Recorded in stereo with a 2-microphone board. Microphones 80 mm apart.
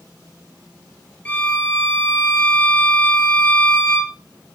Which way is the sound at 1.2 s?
20° left (ahead or behind).